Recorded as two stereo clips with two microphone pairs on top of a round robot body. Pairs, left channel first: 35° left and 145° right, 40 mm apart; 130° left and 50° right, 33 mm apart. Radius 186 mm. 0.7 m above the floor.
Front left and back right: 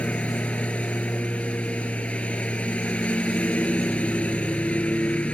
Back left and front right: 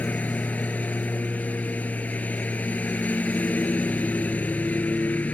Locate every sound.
0.0 s a lawn mower: 90° left